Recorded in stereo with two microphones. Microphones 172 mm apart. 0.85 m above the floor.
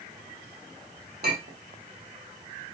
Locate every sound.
1.2 s a clink: 65° right (ahead or behind), 1.2 m